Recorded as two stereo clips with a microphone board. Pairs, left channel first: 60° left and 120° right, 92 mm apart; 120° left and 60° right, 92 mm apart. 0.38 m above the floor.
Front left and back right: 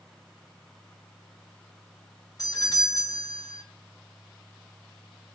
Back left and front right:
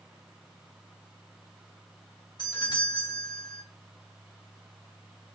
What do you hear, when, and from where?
2.4 s a doorbell: 95° left, 2.5 m